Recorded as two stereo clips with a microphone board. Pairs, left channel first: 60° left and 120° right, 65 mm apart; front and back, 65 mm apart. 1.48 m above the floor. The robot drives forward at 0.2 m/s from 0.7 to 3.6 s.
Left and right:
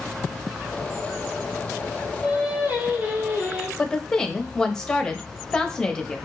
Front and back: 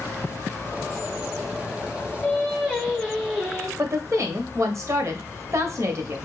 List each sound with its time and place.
2.2 s singing: 85° right, 1.1 m; by 3.7 s 105° right, 1.1 m
3.8 s a woman speaking: 140° left, 0.6 m